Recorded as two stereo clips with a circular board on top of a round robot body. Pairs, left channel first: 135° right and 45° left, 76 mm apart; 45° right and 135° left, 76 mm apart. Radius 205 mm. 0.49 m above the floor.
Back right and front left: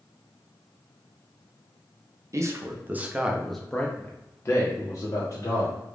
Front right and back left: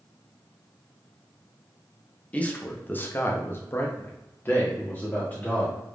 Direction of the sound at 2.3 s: 20° left.